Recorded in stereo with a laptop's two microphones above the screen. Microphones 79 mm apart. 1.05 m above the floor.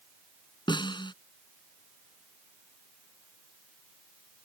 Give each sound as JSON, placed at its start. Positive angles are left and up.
{"t": 0.7, "sound": "a snare drum", "side_deg": 80}